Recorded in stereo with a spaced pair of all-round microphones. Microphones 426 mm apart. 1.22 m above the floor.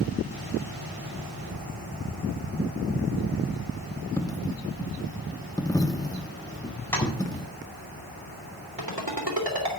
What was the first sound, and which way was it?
A dropped coin, 10° left (ahead or behind).